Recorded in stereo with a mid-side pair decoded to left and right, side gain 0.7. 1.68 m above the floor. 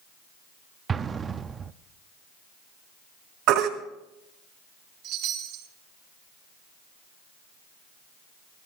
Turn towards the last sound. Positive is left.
turn(degrees=-70)